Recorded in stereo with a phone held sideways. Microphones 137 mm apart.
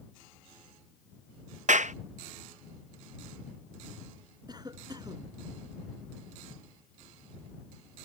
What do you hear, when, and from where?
1.7 s a clap: 60° right (ahead or behind)
4.5 s a cough: 30° right (ahead or behind)